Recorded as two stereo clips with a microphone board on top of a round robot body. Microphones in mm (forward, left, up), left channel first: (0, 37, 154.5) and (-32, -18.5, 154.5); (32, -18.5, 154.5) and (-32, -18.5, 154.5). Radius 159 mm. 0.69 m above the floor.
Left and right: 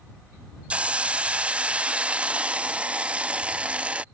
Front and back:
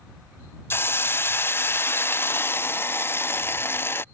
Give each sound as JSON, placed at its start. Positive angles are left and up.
{"t": 0.7, "sound": "a hiss", "azimuth_deg": -50}